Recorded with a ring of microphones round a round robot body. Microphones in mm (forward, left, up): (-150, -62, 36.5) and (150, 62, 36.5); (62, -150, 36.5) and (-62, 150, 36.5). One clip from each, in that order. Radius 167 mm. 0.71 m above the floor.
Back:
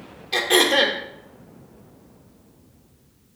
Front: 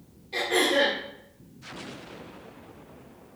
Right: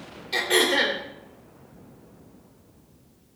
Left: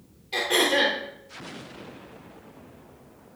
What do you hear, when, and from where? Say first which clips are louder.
0.3 s throat clearing: back 6 dB, right 1 dB; 145° right, 2.5 m